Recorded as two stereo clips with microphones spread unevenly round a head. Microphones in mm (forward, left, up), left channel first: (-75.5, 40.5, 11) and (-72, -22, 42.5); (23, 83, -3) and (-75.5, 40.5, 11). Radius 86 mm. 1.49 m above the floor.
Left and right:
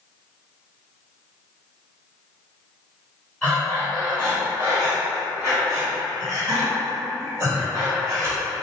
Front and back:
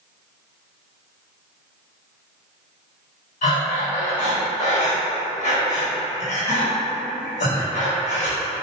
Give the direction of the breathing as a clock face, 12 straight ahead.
11 o'clock.